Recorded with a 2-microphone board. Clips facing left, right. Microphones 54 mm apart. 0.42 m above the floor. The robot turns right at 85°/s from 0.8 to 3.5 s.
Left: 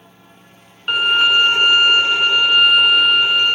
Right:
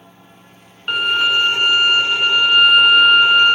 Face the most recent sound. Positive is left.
turn(degrees=-20)  # may be behind; listen again after turning